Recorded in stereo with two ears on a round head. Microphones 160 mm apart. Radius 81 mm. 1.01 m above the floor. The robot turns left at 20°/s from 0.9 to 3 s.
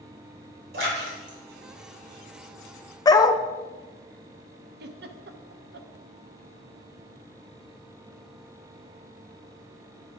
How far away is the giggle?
About 0.8 m.